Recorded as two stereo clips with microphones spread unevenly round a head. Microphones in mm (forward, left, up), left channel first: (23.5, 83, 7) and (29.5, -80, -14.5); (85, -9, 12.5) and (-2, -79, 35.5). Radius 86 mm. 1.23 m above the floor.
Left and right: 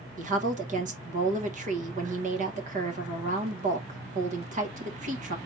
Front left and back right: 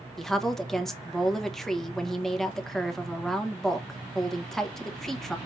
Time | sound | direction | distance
0.2 | a woman speaking | 45° right | 1.3 m